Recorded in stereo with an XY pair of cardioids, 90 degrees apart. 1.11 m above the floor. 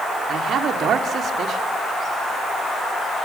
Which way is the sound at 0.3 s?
65° right.